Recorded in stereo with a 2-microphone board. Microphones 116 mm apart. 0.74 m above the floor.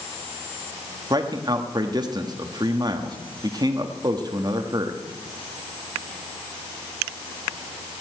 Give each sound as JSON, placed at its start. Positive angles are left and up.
{"t": 1.1, "sound": "a man speaking", "side_deg": -35, "distance_m": 1.1}